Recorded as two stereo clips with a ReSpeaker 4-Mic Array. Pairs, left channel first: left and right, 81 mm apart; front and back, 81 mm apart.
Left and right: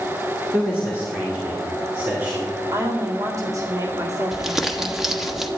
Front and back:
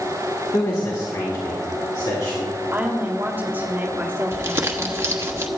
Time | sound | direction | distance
0.5 | a man speaking | 25° right | 2 m
2.7 | a woman speaking | 120° right | 1.7 m
4.3 | crumpling | 175° right | 1.3 m